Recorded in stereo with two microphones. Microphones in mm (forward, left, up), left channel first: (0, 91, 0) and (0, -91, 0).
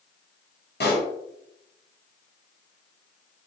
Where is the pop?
65° left (ahead or behind), 1.0 m.